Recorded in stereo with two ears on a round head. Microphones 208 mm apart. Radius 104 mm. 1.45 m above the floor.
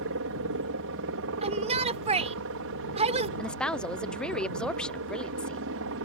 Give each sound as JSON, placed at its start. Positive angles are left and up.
{"t": 0.0, "sound": "a helicopter", "side_deg": -60}
{"t": 1.4, "sound": "a shout", "side_deg": -30}
{"t": 3.4, "sound": "a woman speaking", "side_deg": 5}